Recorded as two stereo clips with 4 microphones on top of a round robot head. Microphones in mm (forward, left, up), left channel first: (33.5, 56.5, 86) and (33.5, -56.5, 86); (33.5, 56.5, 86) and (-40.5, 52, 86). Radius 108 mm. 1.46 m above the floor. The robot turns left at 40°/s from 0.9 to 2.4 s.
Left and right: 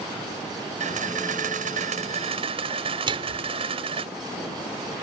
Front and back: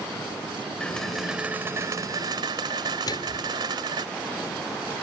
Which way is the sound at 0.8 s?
80° right.